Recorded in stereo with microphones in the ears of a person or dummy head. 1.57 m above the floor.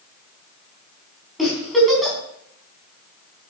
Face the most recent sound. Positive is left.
turn(degrees=0)  # may be behind; listen again after turning